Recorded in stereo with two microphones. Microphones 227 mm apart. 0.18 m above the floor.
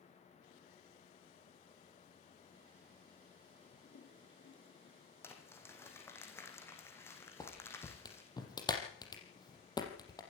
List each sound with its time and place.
3.7 s a toilet flushing: 55° left (ahead or behind), 4.5 m
5.2 s crumpling: 10° left (ahead or behind), 4 m
7.4 s a clap: 15° left (ahead or behind), 4.5 m